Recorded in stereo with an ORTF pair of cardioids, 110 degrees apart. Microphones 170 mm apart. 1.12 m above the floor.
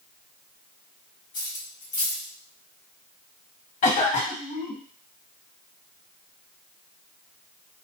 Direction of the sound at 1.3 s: 55° left.